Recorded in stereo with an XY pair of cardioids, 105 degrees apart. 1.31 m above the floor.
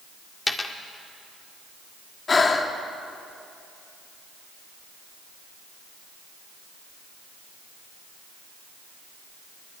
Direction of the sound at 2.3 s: 35° left.